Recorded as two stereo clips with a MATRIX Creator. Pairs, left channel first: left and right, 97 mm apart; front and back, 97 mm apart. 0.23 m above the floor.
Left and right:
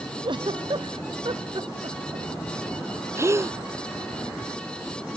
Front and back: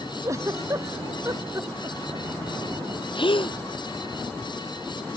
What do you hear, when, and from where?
0.2 s a giggle: 125° right
3.1 s a gasp: 30° right